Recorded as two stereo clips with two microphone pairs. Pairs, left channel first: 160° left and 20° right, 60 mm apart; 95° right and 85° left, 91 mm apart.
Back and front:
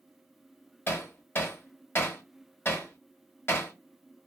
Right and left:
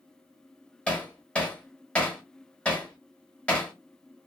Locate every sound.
0.9 s hammering: 170° right, 0.8 m